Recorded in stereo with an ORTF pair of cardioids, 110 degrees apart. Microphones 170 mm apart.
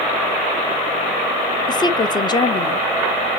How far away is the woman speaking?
About 0.8 m.